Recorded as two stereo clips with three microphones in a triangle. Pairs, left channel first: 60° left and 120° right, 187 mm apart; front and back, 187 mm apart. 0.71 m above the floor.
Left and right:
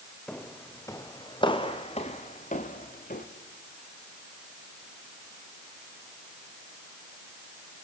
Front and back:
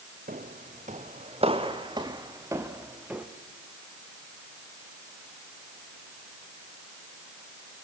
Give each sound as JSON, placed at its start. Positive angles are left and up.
{"t": 0.3, "sound": "footsteps", "azimuth_deg": 145, "distance_m": 2.0}